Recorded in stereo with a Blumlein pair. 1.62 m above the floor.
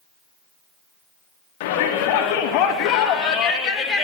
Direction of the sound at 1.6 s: 50° left.